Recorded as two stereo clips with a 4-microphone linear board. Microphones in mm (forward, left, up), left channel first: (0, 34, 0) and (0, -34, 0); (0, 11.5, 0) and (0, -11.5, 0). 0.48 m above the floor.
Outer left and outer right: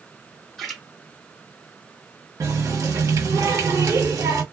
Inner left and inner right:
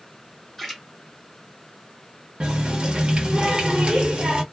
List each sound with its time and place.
0.6 s a splash: 5° left (ahead or behind), 1.2 m
2.4 s a running tap: 50° right (ahead or behind), 0.9 m